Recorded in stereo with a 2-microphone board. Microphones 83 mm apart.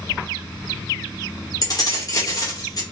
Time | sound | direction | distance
1.6 | keys jangling | 45° left (ahead or behind) | 0.9 m